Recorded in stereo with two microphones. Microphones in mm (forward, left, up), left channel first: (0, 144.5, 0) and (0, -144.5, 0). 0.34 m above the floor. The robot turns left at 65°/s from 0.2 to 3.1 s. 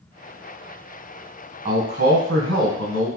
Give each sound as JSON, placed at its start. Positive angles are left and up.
{"t": 1.6, "sound": "a man speaking", "azimuth_deg": -30, "distance_m": 2.0}